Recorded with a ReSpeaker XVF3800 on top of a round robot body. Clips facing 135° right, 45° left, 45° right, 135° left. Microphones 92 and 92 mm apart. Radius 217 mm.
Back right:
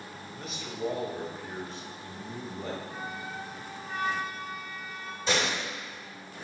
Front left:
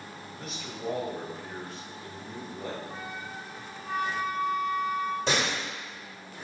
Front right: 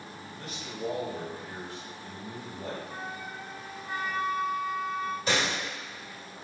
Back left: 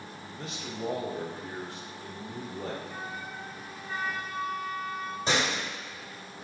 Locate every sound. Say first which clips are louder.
0.3 s a man speaking: back right 2 dB, back left 2 dB; 135° left, 1.0 m
2.9 s a flute: back right 1 dB, even; 20° left, 0.6 m
5.3 s a door slam: even, back left 3 dB; 70° left, 2 m